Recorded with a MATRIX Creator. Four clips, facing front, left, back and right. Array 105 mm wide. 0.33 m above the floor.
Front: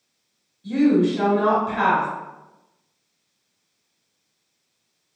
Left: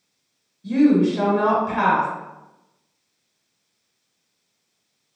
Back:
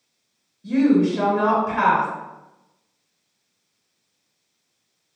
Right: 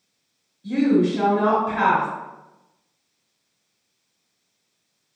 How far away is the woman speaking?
About 1.4 m.